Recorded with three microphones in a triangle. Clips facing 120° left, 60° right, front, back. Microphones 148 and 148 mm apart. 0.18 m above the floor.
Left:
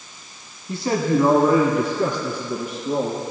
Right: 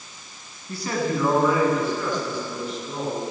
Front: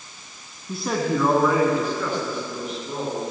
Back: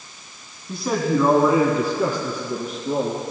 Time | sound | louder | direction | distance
0.7 | a man speaking | left 5 dB, back 2 dB | 80° left | 1.2 m